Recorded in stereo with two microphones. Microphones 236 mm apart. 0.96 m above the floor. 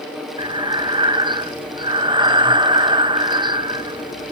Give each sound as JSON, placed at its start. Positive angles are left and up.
{"t": 0.4, "sound": "breathing", "side_deg": -20, "distance_m": 0.8}